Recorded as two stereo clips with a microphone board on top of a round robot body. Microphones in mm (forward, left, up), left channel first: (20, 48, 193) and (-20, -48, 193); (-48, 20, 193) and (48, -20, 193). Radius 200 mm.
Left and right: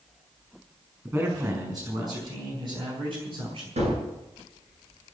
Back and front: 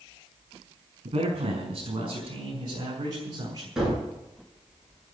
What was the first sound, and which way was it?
A man speaking, 50° right.